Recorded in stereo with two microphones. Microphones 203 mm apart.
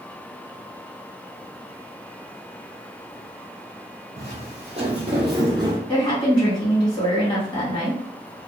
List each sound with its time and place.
4.2 s footsteps: 35° right (ahead or behind), 1.5 m; by 5.8 s 20° right (ahead or behind), 0.8 m
5.9 s a woman speaking: 25° left (ahead or behind), 1.8 m